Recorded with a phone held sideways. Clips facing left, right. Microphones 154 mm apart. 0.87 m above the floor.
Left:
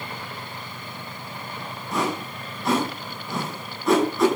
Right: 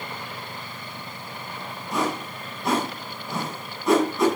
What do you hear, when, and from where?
1.9 s a whoosh: centre (ahead or behind), 8.5 m